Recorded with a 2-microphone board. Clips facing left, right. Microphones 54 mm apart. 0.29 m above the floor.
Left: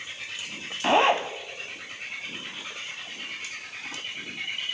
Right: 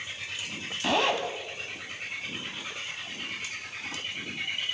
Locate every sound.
0.8 s a zipper: 30° left (ahead or behind), 1.8 m